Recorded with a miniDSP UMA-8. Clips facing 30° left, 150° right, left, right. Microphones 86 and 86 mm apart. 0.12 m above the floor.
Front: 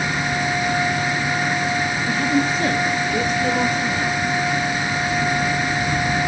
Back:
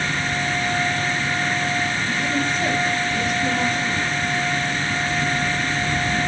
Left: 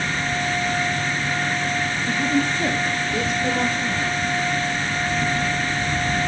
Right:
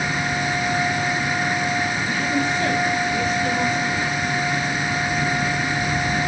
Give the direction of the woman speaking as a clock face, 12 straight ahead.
11 o'clock.